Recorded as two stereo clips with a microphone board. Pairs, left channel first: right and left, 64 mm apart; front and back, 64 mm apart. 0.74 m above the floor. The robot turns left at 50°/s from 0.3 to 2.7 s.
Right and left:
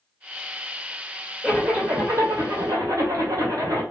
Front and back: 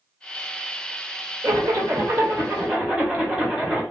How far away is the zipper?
About 1.8 m.